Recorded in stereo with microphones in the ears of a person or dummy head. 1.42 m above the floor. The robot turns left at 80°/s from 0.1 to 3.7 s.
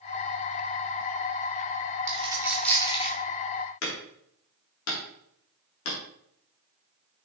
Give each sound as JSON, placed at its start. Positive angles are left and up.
{"t": 2.1, "sound": "a dropped coin", "side_deg": -40, "distance_m": 1.9}
{"t": 3.8, "sound": "hammering", "side_deg": 80, "distance_m": 3.5}